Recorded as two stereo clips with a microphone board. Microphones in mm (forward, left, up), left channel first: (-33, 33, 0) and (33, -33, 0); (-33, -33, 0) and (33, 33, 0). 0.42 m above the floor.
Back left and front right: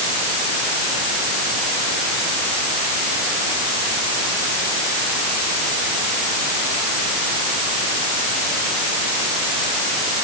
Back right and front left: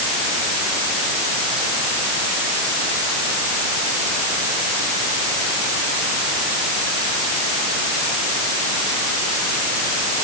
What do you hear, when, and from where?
Only background noise.